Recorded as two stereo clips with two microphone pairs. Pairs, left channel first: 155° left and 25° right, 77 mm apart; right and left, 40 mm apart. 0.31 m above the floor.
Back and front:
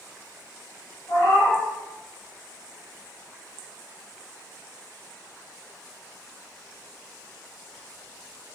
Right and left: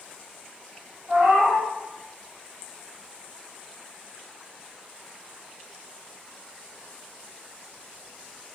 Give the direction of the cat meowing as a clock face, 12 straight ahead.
8 o'clock.